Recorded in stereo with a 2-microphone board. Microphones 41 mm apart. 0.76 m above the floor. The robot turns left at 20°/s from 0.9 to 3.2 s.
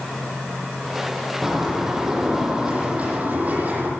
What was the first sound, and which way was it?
A bird, 5° right.